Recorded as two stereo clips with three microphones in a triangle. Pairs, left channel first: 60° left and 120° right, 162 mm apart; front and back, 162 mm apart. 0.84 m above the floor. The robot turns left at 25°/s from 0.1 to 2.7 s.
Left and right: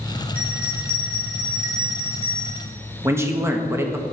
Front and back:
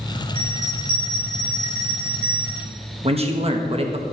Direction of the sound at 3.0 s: 175° left.